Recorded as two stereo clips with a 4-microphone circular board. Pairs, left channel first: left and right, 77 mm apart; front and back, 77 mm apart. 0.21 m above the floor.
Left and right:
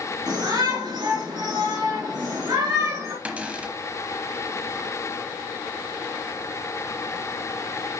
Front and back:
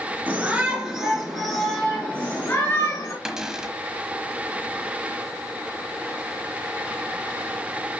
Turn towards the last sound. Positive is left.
turn(degrees=-115)